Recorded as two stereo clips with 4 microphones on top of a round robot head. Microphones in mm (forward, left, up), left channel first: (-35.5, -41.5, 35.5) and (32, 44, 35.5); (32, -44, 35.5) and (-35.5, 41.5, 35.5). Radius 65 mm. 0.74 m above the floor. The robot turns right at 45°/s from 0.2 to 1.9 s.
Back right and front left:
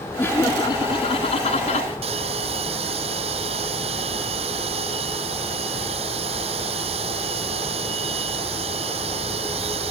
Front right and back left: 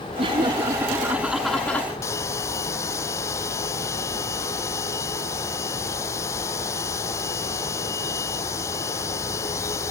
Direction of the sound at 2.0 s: 15° left.